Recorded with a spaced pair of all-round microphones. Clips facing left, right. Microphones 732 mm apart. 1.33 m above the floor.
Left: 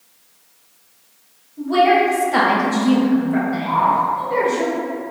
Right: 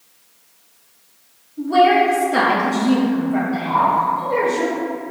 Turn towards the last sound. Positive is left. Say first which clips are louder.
# right 1 dB
turn(degrees=-65)  # may be behind; listen again after turning